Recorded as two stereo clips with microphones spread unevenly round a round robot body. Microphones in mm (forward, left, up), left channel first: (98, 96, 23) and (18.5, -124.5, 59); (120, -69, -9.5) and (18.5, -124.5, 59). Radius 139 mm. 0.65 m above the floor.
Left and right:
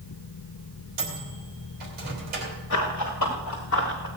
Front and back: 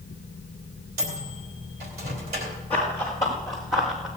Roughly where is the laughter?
No laughter in this recording.